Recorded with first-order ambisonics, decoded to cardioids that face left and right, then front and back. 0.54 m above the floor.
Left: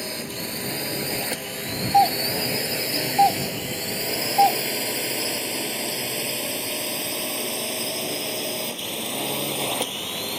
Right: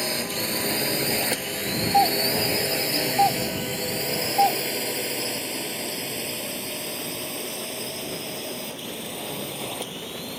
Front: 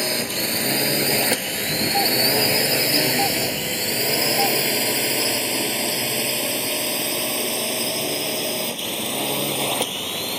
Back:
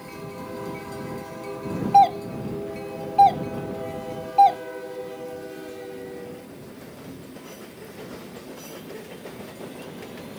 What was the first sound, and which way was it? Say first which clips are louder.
A drone: right 4 dB, front 14 dB; 15° right.